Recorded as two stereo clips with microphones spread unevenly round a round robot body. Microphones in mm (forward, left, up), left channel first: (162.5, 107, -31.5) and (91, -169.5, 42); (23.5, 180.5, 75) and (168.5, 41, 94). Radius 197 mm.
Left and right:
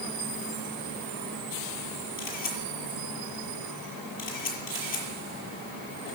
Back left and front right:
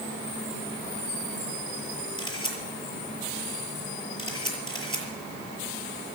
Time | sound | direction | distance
2.2 | a camera shutter | 70° left | 6.5 m